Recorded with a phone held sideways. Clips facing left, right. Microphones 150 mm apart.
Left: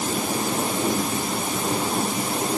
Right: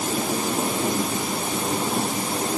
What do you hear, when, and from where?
Only background noise.